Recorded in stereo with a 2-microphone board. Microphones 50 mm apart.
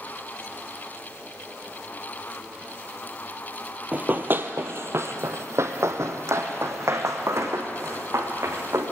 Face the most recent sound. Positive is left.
turn(degrees=-75)  # may be behind; listen again after turning